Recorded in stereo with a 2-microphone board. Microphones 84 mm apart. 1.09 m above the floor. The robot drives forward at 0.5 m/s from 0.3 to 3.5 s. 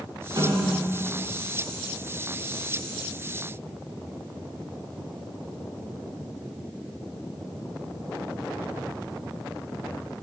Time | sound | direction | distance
0.4 | a snare drum | 55° right (ahead or behind) | 6 m